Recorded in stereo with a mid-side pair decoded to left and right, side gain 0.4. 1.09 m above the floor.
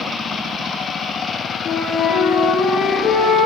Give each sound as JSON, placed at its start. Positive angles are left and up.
{"t": 1.6, "sound": "a flute", "azimuth_deg": 65, "distance_m": 7.0}